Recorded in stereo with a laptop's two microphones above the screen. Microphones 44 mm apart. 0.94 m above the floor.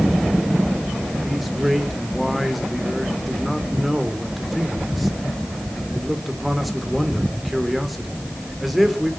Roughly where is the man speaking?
Centre.